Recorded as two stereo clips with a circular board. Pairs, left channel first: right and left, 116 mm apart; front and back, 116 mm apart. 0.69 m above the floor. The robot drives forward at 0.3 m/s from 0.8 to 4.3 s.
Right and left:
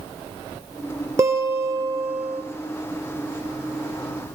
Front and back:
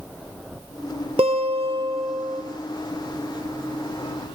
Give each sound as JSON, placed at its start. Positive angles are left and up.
{"t": 1.2, "sound": "a guitar", "azimuth_deg": 150, "distance_m": 3.0}